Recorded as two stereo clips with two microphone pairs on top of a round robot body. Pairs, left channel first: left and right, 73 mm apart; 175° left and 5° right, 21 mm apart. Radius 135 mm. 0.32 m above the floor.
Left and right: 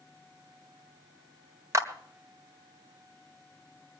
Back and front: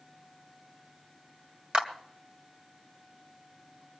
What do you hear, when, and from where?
1.7 s a clap: 50° right, 2 m